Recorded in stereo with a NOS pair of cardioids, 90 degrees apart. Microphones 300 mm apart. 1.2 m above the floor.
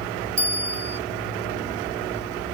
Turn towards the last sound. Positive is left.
turn(degrees=-40)